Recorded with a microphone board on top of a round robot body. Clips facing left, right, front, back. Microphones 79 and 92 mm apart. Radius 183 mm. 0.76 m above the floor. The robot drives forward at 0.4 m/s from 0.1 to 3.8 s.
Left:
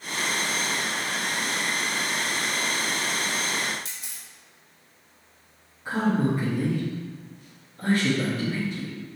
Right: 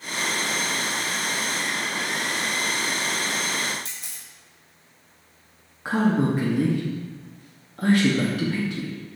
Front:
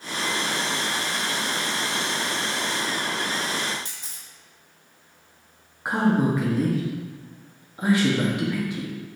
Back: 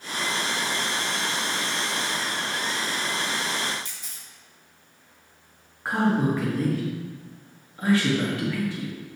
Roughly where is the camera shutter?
Ahead right.